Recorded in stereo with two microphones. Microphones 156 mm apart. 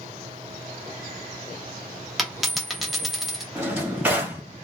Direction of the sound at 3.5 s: 10° right (ahead or behind).